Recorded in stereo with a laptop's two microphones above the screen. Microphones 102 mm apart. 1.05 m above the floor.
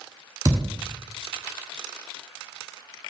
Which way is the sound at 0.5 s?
35° right (ahead or behind).